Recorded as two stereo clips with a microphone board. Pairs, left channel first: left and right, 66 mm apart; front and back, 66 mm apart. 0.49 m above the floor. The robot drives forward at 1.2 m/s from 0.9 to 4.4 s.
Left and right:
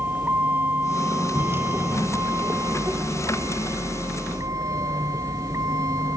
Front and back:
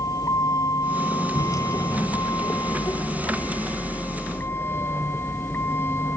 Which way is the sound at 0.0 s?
30° right.